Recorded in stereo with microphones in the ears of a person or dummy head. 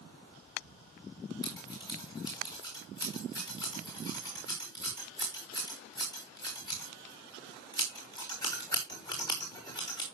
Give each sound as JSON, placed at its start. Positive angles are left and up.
{"t": 1.4, "sound": "scissors", "side_deg": 15, "distance_m": 4.5}